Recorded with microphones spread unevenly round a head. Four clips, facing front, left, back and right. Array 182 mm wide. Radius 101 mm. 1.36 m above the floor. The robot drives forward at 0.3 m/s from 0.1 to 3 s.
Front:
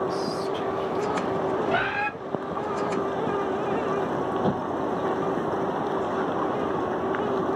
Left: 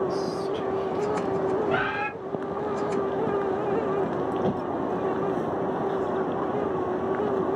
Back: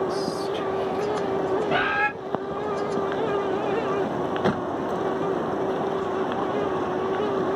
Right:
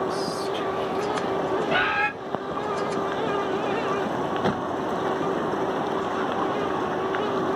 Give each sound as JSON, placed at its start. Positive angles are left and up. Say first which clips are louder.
{"t": 0.1, "sound": "whispering", "louder": "even, back 1 dB", "azimuth_deg": -170, "distance_m": 1.6}
{"t": 1.7, "sound": "a bird", "louder": "right 3 dB, back 2 dB", "azimuth_deg": -145, "distance_m": 1.7}